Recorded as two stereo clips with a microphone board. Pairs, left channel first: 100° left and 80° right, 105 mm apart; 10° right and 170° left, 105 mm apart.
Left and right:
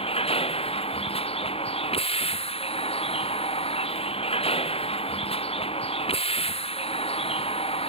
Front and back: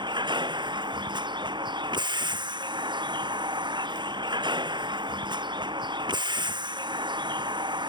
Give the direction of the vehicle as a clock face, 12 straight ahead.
8 o'clock.